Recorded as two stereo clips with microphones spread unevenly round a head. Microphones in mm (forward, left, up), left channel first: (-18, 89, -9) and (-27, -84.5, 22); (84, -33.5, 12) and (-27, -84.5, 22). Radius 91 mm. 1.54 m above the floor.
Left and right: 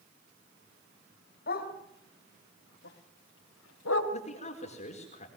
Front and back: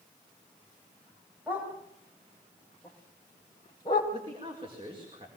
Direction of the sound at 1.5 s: 125° left.